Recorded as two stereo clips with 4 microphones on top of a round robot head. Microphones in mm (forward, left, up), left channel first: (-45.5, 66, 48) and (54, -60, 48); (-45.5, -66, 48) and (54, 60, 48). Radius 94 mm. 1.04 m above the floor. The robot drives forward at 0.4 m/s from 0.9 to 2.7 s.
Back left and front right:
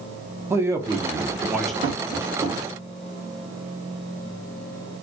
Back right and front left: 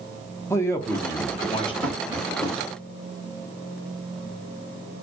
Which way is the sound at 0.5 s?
90° right.